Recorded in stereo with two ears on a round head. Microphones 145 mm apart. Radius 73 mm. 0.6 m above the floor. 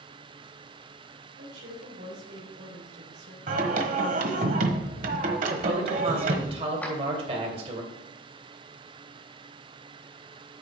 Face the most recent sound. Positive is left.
turn(degrees=10)  # may be behind; listen again after turning